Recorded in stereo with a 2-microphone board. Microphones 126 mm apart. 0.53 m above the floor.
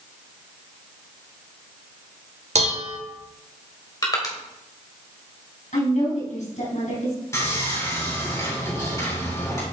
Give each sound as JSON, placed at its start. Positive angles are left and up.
{"t": 2.5, "sound": "dishes clattering", "side_deg": -60, "distance_m": 1.1}
{"t": 4.0, "sound": "crushing", "side_deg": 30, "distance_m": 1.9}
{"t": 5.7, "sound": "a woman speaking", "side_deg": 75, "distance_m": 4.0}
{"t": 7.3, "sound": "sawing", "side_deg": 25, "distance_m": 4.0}